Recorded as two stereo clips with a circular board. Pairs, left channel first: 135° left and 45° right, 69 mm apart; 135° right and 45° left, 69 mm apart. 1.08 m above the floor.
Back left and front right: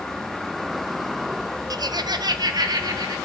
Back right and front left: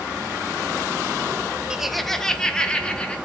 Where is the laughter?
35° right, 0.5 m; by 3.1 s 60° right, 2.5 m.